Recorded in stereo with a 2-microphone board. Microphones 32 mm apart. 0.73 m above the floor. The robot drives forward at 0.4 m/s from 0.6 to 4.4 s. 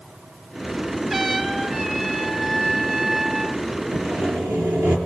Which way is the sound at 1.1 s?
15° right (ahead or behind).